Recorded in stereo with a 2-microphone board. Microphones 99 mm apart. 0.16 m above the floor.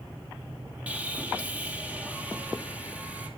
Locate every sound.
0.9 s sawing: 15° right (ahead or behind), 2 m